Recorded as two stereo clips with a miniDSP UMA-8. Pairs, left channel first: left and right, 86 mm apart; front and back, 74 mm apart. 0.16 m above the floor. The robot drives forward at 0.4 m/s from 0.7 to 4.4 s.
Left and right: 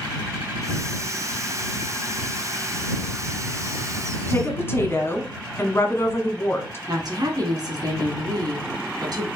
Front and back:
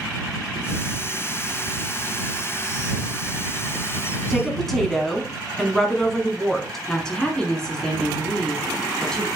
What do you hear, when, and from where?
4.3 s a woman speaking: 80° left, 1.2 m
6.9 s a woman speaking: 80° right, 1.8 m